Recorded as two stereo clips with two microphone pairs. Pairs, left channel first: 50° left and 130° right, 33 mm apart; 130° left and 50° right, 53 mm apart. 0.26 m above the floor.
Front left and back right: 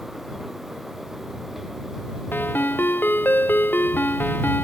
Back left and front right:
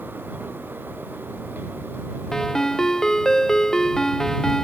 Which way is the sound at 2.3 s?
50° left.